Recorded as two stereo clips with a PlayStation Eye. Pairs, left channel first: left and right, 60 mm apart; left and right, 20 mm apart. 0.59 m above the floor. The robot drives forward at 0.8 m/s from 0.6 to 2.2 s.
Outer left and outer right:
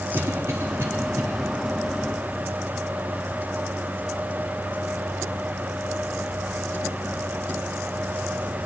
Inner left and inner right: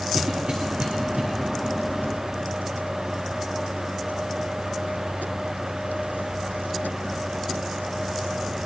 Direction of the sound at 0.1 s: 55° right (ahead or behind).